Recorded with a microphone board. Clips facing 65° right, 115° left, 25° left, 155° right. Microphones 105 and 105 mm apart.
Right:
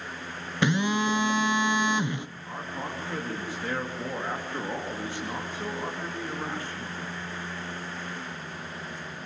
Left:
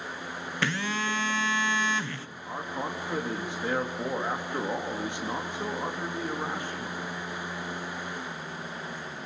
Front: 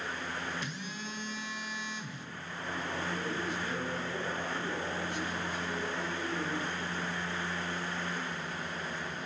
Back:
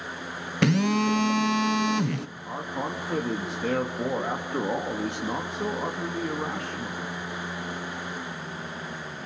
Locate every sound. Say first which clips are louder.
0.6 s a phone buzzing: right 6 dB, back 19 dB; 140° right, 0.7 m
2.5 s a man speaking: left 3 dB, back 6 dB; 175° right, 3 m